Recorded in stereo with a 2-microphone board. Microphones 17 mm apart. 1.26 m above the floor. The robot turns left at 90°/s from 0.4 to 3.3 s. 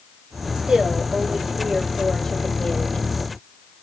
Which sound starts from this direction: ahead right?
A woman speaking, at 0.6 s.